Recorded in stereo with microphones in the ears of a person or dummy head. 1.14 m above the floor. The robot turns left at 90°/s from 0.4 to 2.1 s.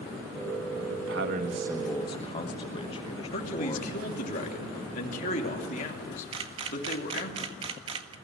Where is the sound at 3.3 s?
40° left (ahead or behind), 3 m.